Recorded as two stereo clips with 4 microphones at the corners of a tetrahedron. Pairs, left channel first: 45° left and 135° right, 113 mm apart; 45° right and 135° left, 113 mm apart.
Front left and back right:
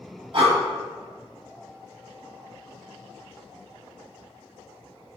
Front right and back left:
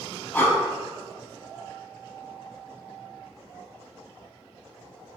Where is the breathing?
115° right, 0.8 m.